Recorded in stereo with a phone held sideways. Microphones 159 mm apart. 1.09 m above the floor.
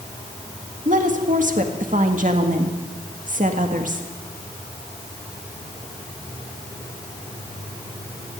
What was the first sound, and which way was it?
A woman speaking, 55° right (ahead or behind).